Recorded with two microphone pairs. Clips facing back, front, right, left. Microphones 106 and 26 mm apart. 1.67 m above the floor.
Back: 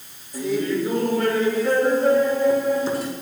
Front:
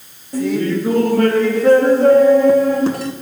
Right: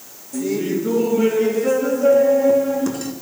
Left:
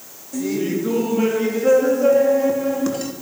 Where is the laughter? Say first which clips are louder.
Front 5 dB, right 1 dB; 20° left, 3 m.